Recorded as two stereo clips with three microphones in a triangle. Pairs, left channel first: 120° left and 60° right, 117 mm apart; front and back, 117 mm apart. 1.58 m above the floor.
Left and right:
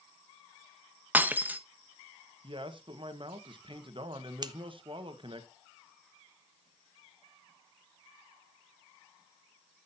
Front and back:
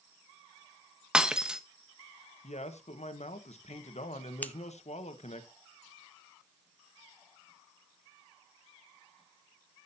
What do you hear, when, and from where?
1.1 s breaking glass: 110° right, 0.8 m
2.4 s a man speaking: 15° right, 1.4 m
4.4 s scissors: 65° right, 0.6 m